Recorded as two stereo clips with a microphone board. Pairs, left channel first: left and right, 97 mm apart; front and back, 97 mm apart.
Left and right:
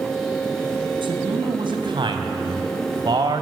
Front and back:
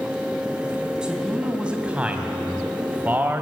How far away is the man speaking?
About 3.5 m.